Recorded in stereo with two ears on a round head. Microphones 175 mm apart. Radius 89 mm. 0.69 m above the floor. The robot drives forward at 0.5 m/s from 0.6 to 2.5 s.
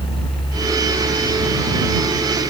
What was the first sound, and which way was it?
Only background noise.